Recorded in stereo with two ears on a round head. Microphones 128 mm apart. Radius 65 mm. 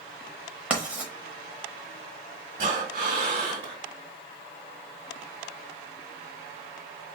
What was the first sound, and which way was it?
Writing, 10° right (ahead or behind).